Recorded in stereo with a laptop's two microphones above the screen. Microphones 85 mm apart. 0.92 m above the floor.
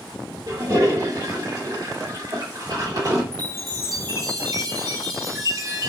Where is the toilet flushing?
45° right (ahead or behind), 2 m.